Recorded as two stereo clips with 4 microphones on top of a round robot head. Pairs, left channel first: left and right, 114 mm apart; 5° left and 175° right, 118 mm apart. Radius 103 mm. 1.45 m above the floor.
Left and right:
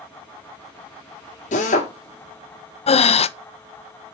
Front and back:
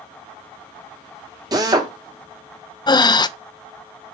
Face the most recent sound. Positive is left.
turn(degrees=60)